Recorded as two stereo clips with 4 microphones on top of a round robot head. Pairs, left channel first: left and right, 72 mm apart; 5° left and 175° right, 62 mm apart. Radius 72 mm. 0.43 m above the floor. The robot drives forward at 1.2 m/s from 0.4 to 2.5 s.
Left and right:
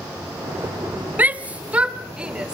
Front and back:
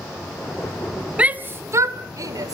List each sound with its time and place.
1.2 s a shout: 130° right, 1.0 m; by 2.5 s 170° right, 2 m